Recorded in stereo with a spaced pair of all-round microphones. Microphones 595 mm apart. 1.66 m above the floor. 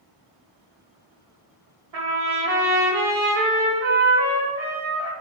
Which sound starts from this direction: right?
A trumpet, at 1.9 s.